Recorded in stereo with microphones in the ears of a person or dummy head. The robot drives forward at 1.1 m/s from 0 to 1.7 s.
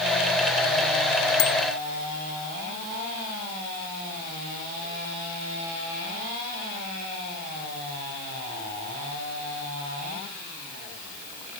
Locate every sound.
1.4 s a bicycle bell: 65° left (ahead or behind); by 1.5 s 60° left (ahead or behind)